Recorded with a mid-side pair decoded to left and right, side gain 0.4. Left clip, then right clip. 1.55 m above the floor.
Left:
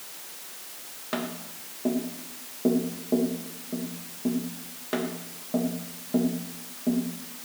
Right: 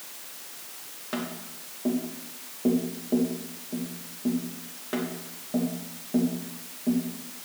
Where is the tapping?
25° left, 2.5 m.